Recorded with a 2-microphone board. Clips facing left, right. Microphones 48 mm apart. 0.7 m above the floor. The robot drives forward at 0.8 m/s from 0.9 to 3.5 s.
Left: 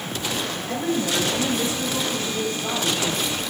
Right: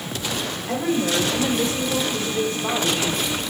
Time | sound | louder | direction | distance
0.7 | a woman speaking | right 3 dB | 40° right (ahead or behind) | 2.5 m